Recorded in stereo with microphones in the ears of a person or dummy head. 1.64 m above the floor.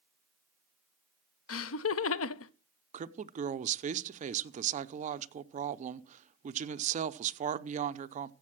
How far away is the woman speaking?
About 0.7 m.